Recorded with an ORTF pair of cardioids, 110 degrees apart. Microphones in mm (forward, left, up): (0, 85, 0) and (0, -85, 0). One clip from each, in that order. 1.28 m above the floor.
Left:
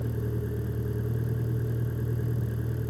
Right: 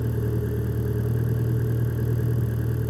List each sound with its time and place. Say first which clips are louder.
0.0 s a vehicle: right 5 dB; 30° right